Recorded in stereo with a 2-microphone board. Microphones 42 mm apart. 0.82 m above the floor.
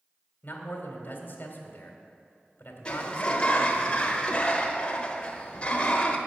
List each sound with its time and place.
0.4 s a man speaking: 50° left (ahead or behind), 2 m
2.9 s a sliding door: 25° left (ahead or behind), 1.0 m